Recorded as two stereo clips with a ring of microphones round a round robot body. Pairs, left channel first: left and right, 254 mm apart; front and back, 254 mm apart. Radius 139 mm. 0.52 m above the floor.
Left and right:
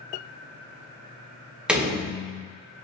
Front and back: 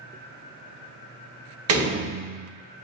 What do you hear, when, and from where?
1.7 s a door slam: 175° right, 1.0 m